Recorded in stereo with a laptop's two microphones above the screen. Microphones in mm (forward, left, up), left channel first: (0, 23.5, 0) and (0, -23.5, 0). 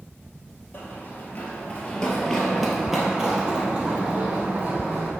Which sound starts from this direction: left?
Running footsteps, at 0.7 s.